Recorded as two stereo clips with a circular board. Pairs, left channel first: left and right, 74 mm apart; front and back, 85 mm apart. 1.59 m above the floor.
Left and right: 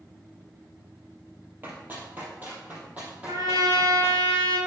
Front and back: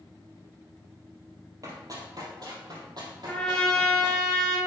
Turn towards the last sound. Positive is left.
turn(degrees=-80)